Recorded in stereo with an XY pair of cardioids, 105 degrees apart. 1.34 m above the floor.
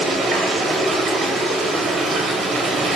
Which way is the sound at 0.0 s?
65° right.